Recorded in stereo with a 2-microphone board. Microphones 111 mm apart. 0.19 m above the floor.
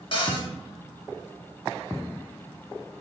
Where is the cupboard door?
55° left (ahead or behind), 0.7 m.